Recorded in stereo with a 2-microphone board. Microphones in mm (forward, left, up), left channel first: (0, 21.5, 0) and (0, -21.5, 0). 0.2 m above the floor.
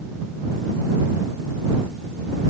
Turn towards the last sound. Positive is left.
No sound to turn to.